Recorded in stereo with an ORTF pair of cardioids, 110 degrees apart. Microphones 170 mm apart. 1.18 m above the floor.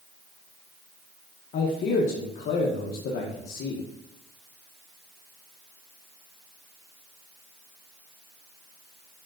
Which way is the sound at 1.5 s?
60° left.